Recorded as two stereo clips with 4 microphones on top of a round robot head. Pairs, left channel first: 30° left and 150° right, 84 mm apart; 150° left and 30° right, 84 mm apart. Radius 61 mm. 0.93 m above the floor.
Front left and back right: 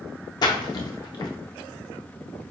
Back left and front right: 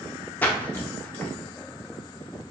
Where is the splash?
75° left, 0.6 m.